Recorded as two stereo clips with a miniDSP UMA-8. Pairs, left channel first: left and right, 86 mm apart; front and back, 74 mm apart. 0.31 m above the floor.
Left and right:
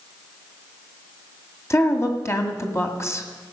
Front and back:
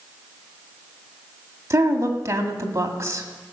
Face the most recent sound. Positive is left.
turn(degrees=140)